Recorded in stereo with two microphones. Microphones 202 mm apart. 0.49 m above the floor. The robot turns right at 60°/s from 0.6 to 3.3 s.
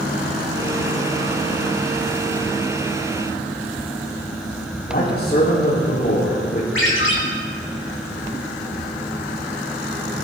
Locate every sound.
4.9 s a man speaking: 50° left (ahead or behind), 3 m
6.8 s a ringtone: 75° left (ahead or behind), 3 m